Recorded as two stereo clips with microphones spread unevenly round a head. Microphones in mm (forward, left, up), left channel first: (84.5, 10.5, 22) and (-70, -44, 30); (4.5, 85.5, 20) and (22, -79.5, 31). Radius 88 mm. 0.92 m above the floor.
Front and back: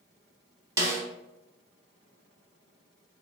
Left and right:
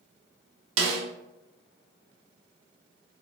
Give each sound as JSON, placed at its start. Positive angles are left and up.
{"t": 0.8, "sound": "a snare drum", "azimuth_deg": -90, "distance_m": 0.7}